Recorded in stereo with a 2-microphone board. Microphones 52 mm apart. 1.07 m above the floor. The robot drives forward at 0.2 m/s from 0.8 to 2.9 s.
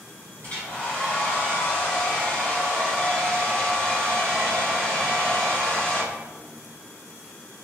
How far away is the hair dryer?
About 1.2 m.